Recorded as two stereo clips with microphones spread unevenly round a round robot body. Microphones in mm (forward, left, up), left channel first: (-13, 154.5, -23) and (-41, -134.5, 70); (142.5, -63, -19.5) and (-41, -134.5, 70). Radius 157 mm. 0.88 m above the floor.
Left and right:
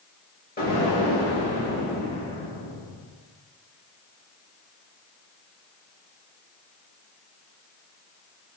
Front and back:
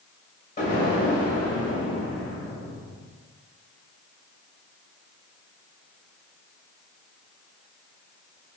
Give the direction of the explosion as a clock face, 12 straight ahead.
11 o'clock.